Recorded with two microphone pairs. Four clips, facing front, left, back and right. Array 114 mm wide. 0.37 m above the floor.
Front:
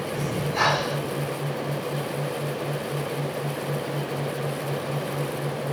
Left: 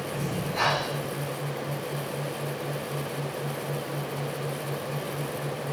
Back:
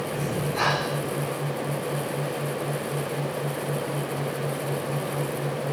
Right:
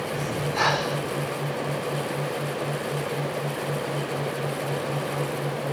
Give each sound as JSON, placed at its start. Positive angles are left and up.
{"t": 0.1, "sound": "breathing", "azimuth_deg": -10, "distance_m": 1.6}